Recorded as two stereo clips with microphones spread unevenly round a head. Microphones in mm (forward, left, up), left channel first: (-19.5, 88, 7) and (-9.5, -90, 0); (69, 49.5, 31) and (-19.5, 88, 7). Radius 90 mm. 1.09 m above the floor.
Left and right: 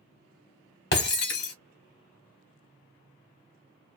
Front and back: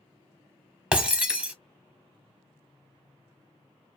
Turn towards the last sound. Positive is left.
turn(degrees=75)